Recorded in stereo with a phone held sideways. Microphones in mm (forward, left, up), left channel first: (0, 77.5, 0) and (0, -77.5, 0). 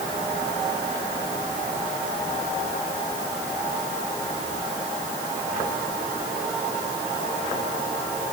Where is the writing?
I don't hear writing.